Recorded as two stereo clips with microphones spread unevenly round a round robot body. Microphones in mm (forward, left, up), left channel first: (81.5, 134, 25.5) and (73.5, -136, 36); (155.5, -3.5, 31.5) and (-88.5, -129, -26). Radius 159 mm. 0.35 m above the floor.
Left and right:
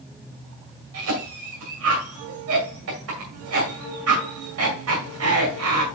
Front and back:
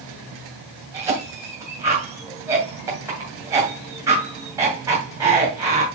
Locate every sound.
0.9 s a cough: 85° right, 2 m